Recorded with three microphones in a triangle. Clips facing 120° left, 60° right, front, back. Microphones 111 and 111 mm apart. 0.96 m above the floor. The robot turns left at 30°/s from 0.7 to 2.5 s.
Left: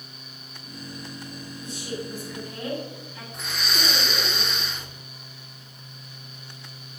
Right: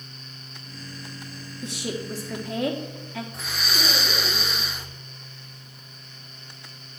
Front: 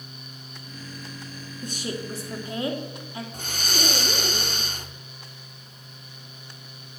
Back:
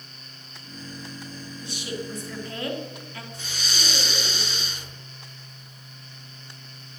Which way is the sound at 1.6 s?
45° right.